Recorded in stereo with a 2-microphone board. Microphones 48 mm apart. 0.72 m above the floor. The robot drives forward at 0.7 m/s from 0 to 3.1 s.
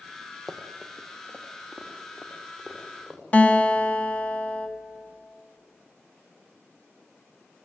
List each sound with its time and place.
0.5 s running footsteps: 5° left (ahead or behind), 1.6 m; by 3.2 s centre (ahead or behind), 5 m
3.3 s a guitar: 30° left (ahead or behind), 1.3 m